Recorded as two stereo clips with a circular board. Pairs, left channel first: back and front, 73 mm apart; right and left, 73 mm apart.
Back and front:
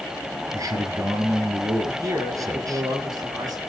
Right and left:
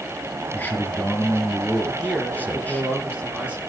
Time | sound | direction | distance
0.5 | a man speaking | 25° right | 2.5 m
1.8 | a man speaking | 20° left | 4.5 m